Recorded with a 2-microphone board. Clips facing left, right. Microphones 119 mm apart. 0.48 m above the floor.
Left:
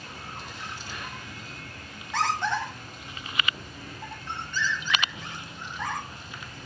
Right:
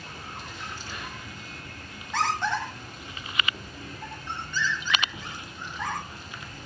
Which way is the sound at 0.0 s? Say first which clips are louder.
Even; 5° left (ahead or behind).